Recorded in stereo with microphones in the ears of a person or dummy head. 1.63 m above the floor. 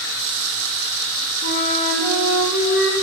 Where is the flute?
60° left (ahead or behind), 1.0 m.